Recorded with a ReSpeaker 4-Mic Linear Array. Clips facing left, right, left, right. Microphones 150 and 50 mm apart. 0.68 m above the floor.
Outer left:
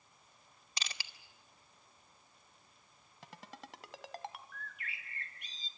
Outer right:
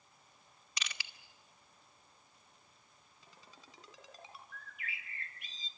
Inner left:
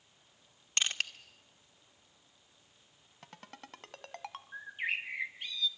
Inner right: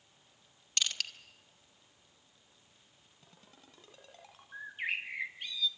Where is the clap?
No clap in this recording.